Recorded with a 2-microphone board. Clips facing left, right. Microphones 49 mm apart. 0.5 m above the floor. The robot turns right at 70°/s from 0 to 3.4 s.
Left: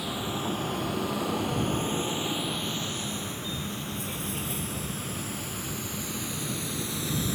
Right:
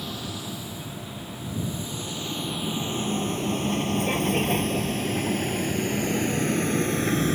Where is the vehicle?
5° left (ahead or behind); by 7.4 s 50° right (ahead or behind).